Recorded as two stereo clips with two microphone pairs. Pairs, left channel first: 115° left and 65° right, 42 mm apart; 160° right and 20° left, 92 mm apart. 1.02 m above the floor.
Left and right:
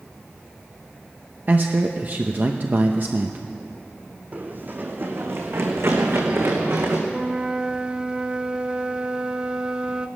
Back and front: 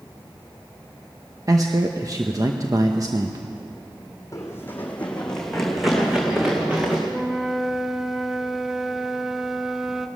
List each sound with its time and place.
1.5 s a man speaking: 25° right, 0.9 m
4.3 s running footsteps: 110° right, 2 m; by 7.0 s 55° right, 4 m
7.1 s a flute: 65° right, 0.7 m